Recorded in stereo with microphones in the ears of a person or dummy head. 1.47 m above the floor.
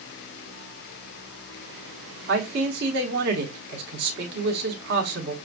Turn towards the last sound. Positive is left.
turn(degrees=-65)  # may be behind; listen again after turning